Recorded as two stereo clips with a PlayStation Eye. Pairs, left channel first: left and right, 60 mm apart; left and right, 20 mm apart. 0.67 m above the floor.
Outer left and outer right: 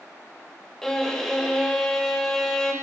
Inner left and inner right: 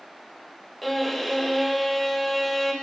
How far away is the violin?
About 0.9 m.